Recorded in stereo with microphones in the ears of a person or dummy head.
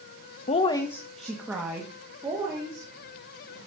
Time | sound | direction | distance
0.5 | a woman speaking | 35° left (ahead or behind) | 0.7 m